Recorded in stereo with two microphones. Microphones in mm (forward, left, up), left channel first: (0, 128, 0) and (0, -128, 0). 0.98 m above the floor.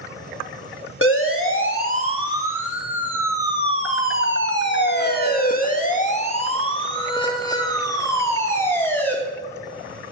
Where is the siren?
55° left (ahead or behind), 2.5 m; by 9.2 s 5° left (ahead or behind), 3.5 m.